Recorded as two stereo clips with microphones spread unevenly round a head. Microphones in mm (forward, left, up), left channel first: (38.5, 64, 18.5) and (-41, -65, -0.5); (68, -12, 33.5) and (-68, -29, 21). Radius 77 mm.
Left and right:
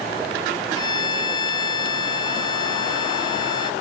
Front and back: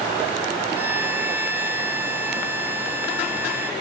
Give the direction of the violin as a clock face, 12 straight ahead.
8 o'clock.